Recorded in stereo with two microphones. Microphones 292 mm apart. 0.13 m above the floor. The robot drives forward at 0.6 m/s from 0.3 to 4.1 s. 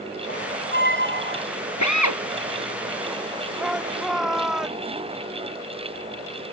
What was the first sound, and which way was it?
A squeak, 35° left (ahead or behind).